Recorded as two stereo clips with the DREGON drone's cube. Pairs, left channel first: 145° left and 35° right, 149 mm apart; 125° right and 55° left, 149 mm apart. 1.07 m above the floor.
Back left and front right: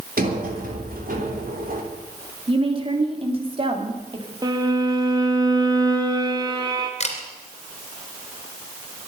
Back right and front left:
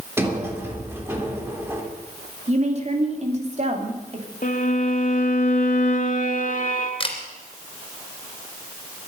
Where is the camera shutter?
175° right, 2.5 m.